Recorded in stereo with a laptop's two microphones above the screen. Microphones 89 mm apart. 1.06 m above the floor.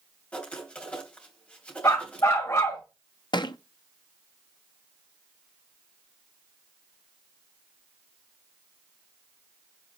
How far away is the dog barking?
About 2 m.